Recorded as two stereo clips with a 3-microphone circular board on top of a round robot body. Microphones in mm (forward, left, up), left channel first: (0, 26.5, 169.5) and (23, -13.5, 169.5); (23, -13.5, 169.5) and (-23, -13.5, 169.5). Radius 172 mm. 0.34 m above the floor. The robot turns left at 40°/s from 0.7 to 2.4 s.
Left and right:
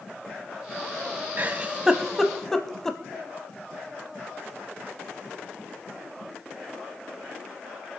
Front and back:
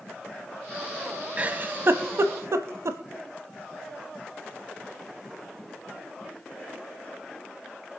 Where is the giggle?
115° right, 0.7 m; by 3.0 s 160° right, 0.7 m.